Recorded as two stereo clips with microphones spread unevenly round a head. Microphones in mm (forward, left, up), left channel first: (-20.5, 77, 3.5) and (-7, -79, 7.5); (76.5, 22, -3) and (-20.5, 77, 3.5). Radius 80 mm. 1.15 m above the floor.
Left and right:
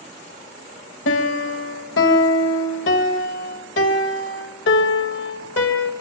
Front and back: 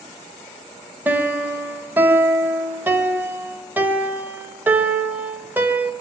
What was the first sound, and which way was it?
A piano, 80° left.